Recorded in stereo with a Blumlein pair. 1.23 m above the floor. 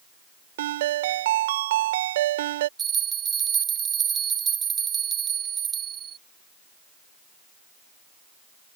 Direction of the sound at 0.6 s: 55° right.